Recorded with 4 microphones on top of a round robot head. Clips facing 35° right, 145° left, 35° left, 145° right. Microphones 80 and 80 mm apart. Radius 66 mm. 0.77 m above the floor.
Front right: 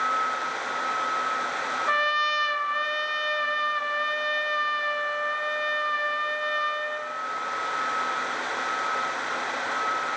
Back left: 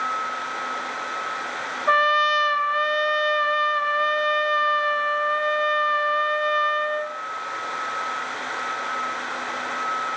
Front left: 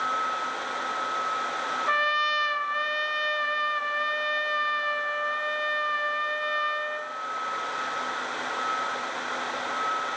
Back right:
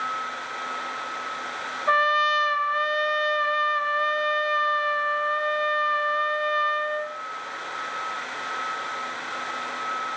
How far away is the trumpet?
About 0.5 m.